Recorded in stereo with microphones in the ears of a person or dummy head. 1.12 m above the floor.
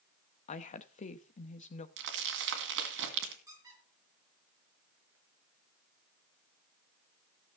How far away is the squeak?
About 5.5 m.